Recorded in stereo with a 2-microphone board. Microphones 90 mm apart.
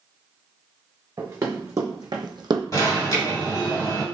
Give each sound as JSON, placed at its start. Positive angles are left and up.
{"t": 1.2, "sound": "running footsteps", "side_deg": -35, "distance_m": 1.5}
{"t": 2.7, "sound": "an alarm", "side_deg": 45, "distance_m": 1.4}